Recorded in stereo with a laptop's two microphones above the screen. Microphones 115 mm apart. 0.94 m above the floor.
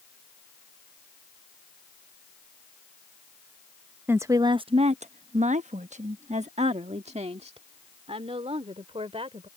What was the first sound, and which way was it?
A woman speaking, 15° right (ahead or behind).